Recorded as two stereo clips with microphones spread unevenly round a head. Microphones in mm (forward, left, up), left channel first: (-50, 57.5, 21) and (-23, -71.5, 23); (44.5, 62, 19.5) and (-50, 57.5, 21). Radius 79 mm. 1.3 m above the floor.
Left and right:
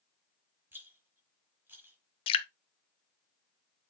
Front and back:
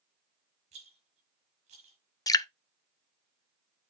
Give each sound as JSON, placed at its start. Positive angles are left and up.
{"t": 0.7, "sound": "a rattle", "azimuth_deg": -155, "distance_m": 4.0}
{"t": 2.3, "sound": "dripping", "azimuth_deg": 55, "distance_m": 0.7}